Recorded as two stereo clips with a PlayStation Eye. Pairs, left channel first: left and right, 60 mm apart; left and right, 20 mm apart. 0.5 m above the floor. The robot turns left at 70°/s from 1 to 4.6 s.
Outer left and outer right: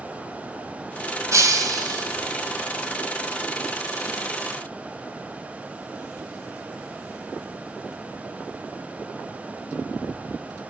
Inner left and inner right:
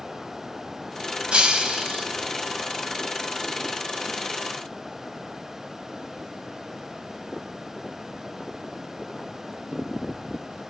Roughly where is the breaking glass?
Ahead right.